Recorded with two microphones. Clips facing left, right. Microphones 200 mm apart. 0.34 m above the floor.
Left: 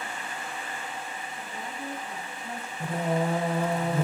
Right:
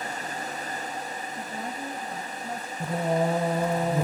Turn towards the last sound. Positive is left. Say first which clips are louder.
# right 2 dB
turn(degrees=-15)  # may be behind; listen again after turning